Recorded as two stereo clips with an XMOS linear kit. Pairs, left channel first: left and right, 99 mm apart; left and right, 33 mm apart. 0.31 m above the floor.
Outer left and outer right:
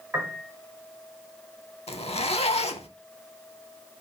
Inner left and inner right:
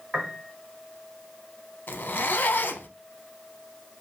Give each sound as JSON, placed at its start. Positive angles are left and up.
{"t": 0.1, "sound": "a piano", "side_deg": -25, "distance_m": 0.9}
{"t": 1.9, "sound": "a zipper", "side_deg": 75, "distance_m": 0.5}